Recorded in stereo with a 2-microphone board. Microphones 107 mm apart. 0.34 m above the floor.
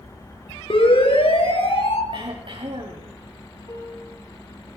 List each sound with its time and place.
0.7 s a siren: 60° left (ahead or behind), 7 m; by 2.0 s 70° left (ahead or behind), 5.5 m
2.1 s throat clearing: 55° right (ahead or behind), 8 m
3.7 s a piano: 30° left (ahead or behind), 6.5 m